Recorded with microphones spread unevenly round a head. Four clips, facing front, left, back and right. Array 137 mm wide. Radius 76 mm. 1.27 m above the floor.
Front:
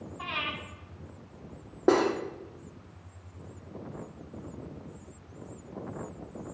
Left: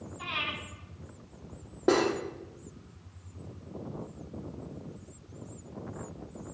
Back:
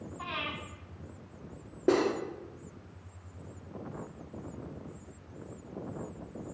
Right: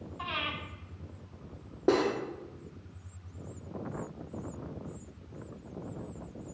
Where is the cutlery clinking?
Straight ahead, 1.4 m.